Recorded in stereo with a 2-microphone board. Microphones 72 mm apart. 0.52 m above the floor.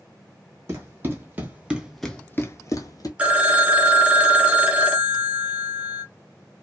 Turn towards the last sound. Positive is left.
turn(degrees=-20)  # may be behind; listen again after turning